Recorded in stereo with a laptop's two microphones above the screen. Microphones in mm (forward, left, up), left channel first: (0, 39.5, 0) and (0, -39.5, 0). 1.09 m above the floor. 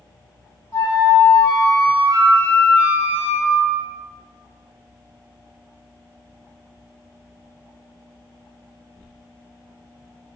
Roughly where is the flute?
Left.